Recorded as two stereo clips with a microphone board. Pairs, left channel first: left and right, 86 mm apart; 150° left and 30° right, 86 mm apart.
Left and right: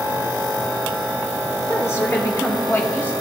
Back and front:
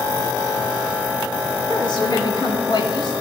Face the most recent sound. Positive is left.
turn(degrees=155)